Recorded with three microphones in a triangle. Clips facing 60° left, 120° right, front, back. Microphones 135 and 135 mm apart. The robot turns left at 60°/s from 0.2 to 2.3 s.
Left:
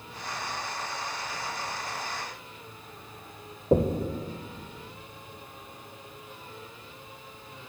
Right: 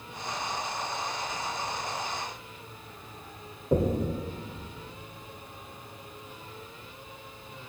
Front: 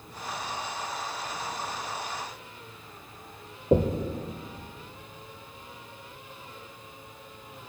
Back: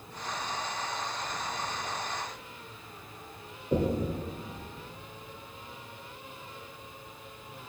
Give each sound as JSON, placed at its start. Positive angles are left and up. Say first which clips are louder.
{"t": 3.7, "sound": "knocking", "louder": "left 2 dB, front 4 dB", "azimuth_deg": 5, "distance_m": 0.8}